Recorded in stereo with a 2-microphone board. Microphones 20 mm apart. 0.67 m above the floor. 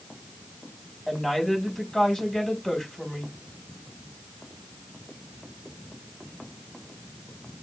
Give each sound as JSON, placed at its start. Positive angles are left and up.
{"t": 1.1, "sound": "a woman speaking", "side_deg": 25, "distance_m": 5.5}